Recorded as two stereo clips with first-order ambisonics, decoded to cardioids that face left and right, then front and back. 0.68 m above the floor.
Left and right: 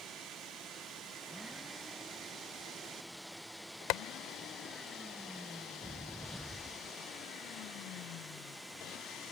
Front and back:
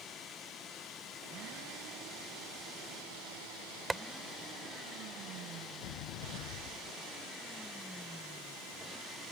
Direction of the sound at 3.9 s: 100° left.